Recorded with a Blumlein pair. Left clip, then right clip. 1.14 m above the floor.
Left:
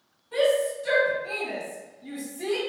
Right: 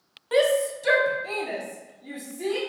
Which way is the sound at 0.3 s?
45° right.